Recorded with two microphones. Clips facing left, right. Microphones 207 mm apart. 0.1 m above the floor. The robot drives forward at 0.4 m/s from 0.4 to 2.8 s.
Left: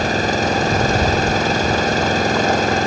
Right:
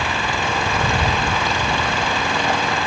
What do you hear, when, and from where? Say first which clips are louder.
0.0 s an engine running: left 6 dB; 40° left (ahead or behind)